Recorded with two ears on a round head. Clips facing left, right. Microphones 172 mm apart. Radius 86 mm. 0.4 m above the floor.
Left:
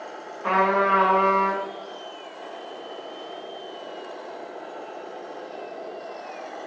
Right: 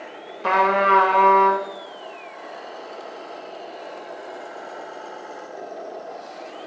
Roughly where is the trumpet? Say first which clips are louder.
Right 2 dB; right.